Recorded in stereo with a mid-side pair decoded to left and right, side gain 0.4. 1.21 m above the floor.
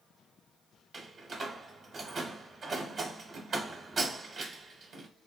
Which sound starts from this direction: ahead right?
A door slam, at 0.9 s.